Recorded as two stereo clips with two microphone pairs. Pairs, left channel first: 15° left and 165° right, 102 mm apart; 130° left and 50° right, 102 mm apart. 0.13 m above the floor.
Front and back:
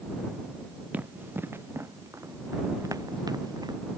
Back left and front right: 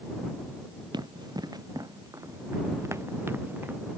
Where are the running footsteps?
95° right; by 3.8 s 120° right.